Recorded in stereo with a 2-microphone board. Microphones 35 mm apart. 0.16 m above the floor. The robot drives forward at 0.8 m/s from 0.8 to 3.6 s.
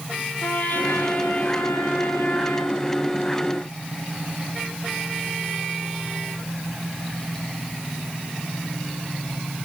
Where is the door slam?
No door slam in this recording.